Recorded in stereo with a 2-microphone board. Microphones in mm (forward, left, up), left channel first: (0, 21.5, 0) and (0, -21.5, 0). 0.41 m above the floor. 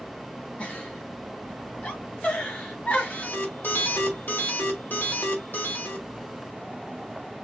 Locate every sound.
0.6 s a giggle: 35° left (ahead or behind), 2 m
3.1 s an alarm: 50° left (ahead or behind), 2 m